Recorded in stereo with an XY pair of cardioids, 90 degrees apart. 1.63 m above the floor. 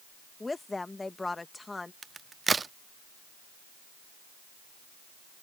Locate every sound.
0.4 s a woman speaking: 20° left
2.0 s a crack: 35° right